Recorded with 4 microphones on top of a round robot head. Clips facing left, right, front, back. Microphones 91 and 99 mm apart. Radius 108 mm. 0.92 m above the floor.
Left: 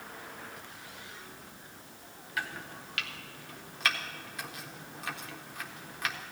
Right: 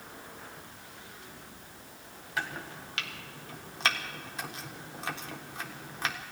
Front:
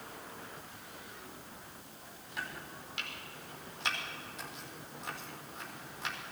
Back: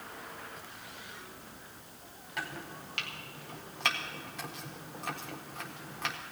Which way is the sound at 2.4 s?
135° right.